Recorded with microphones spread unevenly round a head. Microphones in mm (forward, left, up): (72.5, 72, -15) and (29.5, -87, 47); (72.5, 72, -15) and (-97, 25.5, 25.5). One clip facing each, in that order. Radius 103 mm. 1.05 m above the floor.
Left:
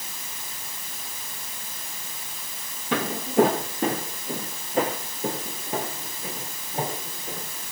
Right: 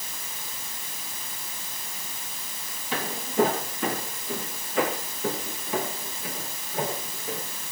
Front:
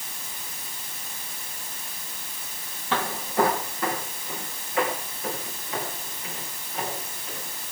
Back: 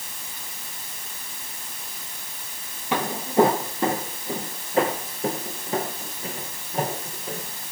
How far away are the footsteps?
About 1.6 m.